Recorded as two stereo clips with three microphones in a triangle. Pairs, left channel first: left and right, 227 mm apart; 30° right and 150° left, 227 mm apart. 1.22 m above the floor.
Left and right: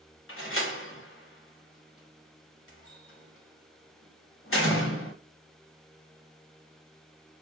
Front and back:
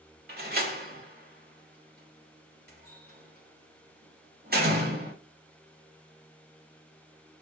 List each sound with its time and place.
0.3 s a door slam: 105° left, 0.9 m